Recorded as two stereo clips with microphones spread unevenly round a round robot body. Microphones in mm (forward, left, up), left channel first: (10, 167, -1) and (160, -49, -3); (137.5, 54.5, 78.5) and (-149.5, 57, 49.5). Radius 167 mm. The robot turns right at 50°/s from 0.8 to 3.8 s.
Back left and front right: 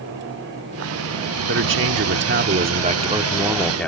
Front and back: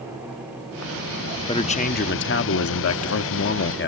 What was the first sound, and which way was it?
A man speaking, 75° right.